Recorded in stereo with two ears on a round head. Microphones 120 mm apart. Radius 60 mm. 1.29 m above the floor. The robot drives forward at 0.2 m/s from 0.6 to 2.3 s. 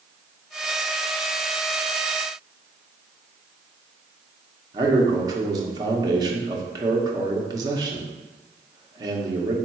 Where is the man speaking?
30° right (ahead or behind), 0.7 m.